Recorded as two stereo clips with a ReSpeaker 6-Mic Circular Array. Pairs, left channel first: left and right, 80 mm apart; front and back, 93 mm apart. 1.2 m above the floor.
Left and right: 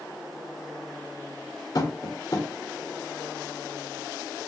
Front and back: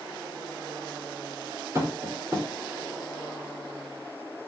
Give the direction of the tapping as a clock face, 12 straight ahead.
8 o'clock.